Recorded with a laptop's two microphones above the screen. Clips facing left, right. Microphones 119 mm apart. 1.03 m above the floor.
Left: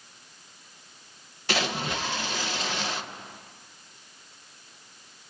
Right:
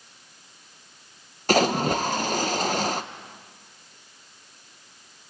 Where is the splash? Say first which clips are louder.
Right 9 dB; 45° right (ahead or behind), 0.8 m.